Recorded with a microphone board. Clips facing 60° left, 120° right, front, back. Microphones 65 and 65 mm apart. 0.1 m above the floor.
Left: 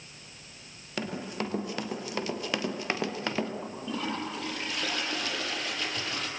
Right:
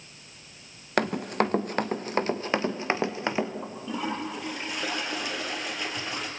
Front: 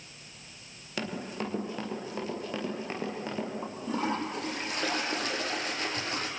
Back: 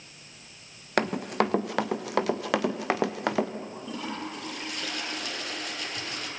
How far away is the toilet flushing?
About 4 m.